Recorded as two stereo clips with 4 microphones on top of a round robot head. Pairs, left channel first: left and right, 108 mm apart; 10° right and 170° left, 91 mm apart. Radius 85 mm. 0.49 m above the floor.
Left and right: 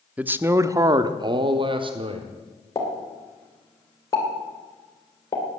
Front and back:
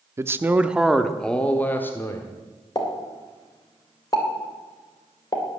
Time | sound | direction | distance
0.2 | a man speaking | 155° right | 0.9 m
2.8 | a pop | 30° left | 3 m